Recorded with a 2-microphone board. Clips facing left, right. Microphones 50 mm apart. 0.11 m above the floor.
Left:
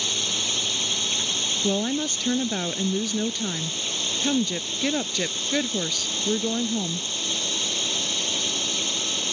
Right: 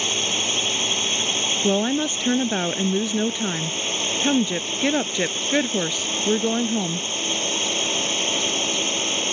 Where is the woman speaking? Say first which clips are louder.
Right 4 dB; 25° right (ahead or behind).